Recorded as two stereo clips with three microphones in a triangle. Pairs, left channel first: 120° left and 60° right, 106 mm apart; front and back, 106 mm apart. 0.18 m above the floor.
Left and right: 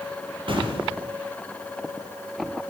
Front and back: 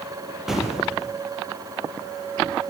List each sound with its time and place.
0.5 s an explosion: 95° right, 4.5 m